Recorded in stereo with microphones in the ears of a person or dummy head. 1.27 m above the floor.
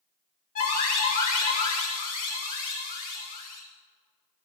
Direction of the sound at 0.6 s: 50° left (ahead or behind).